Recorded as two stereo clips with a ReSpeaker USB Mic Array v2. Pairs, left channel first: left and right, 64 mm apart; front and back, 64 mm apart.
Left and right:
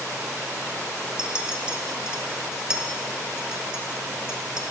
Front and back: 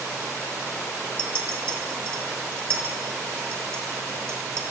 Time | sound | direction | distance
1.2 | a clink | 165° right | 0.5 m